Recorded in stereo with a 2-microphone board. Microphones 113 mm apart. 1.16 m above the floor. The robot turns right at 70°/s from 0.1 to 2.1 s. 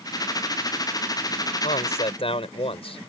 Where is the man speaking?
85° left; by 3.0 s 120° left.